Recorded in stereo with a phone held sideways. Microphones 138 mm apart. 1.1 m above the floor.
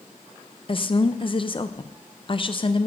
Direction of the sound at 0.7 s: 40° left (ahead or behind).